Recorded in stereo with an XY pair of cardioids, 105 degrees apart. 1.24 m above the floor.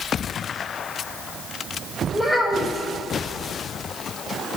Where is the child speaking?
5° left, 4 m.